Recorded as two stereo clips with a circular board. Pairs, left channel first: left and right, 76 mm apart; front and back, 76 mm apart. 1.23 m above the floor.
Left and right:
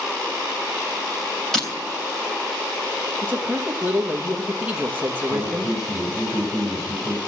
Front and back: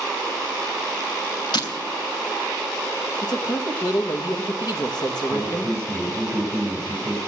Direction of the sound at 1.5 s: 5° left.